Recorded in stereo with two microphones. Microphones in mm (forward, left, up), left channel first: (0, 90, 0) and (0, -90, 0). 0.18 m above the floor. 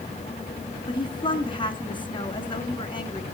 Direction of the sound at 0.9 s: 25° left (ahead or behind).